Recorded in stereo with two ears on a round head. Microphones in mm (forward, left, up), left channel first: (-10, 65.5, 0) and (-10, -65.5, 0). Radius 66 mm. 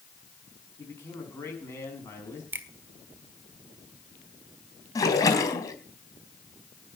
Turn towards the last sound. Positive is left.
turn(degrees=25)  # may be behind; listen again after turning